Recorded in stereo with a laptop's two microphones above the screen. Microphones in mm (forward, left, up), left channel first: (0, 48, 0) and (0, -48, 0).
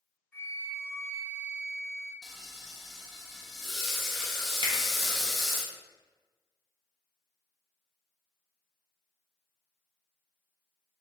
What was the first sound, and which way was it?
A flute, 20° left (ahead or behind).